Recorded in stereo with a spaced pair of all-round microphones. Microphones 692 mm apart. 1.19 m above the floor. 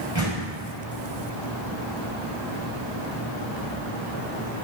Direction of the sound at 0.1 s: 40° left (ahead or behind).